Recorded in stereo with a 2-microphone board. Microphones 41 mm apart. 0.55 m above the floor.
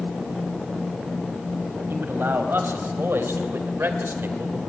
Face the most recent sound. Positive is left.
turn(degrees=-55)  # may be behind; listen again after turning